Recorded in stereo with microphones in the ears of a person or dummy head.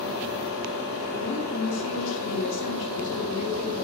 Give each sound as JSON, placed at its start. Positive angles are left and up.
{"t": 1.2, "sound": "a woman speaking", "side_deg": 70, "distance_m": 3.5}